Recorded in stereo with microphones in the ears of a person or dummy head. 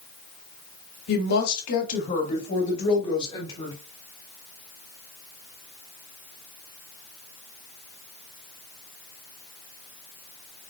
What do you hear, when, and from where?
1.1 s a woman speaking: 60° left (ahead or behind), 2 m; by 3.7 s 25° left (ahead or behind), 2.5 m